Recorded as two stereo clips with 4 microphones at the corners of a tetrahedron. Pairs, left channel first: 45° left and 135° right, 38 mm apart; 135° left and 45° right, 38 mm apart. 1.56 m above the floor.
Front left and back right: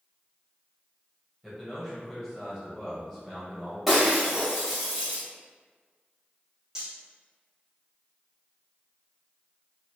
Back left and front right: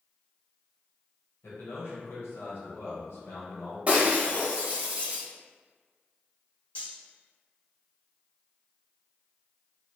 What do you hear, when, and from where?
1.4 s a man speaking: 145° left, 1.5 m
3.9 s breaking glass: 55° right, 1.2 m
6.8 s cutlery clinking: 160° left, 1.1 m